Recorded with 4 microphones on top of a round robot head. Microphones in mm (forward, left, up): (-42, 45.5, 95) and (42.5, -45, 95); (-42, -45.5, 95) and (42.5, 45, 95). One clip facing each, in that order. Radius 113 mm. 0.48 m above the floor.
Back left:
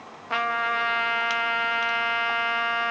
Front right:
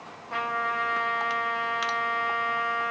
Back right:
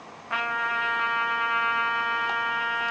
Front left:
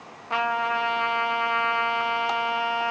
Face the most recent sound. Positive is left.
turn(degrees=110)